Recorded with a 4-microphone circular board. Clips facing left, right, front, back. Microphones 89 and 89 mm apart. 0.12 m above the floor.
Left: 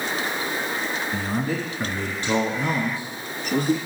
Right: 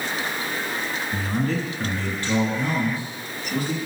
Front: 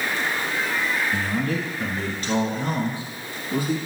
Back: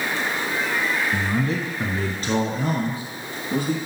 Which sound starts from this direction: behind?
A man speaking, at 1.1 s.